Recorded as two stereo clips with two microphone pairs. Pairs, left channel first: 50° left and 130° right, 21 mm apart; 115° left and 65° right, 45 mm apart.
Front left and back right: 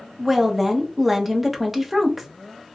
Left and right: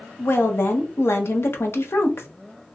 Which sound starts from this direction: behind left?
A woman speaking, at 0.2 s.